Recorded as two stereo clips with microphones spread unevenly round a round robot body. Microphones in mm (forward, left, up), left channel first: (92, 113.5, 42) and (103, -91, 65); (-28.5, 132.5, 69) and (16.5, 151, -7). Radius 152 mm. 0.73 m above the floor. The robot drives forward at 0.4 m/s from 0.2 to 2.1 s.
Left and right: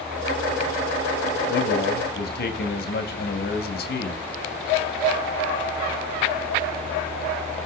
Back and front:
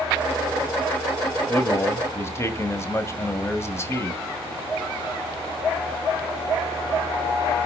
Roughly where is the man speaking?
Left.